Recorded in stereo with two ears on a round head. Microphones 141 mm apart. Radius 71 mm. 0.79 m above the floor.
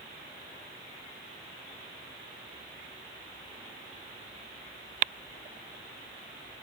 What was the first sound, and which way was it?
Only background noise.